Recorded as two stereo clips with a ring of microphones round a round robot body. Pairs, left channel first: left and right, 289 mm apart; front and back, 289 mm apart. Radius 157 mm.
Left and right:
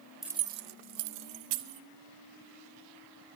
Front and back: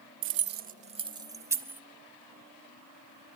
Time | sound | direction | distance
0.2 | keys jangling | straight behind | 0.6 m